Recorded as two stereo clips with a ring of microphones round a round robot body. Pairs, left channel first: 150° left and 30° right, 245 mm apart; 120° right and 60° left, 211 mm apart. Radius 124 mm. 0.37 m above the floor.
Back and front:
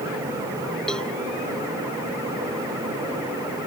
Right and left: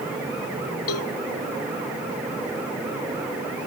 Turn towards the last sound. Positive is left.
turn(degrees=-125)